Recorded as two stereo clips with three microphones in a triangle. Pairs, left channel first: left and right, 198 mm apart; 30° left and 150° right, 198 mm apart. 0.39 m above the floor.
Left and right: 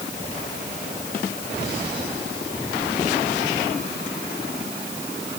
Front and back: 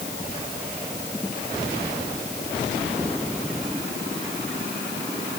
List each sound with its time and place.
Only background noise.